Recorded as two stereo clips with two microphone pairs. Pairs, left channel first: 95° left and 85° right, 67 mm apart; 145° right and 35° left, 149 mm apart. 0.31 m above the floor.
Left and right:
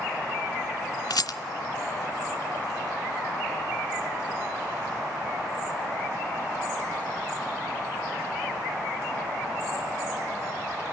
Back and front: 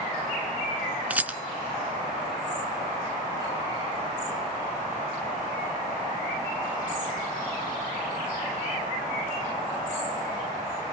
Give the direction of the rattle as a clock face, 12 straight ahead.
8 o'clock.